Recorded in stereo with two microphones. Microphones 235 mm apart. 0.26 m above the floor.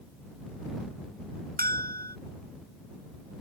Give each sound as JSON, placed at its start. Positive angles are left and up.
{"t": 1.6, "sound": "a bell", "side_deg": -40}